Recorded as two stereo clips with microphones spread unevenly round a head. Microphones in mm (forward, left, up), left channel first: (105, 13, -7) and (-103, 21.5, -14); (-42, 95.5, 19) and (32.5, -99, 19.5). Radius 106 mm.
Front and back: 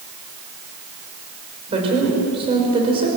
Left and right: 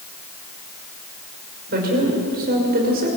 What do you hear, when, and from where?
1.7 s a woman speaking: 115° right, 5.5 m